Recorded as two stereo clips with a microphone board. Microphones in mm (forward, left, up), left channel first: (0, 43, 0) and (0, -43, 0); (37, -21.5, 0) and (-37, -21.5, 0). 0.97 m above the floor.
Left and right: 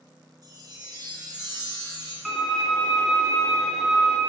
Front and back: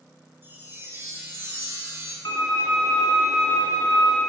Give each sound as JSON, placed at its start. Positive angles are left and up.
{"t": 0.4, "sound": "a chime", "azimuth_deg": -125, "distance_m": 1.3}
{"t": 2.2, "sound": "a violin", "azimuth_deg": -5, "distance_m": 1.0}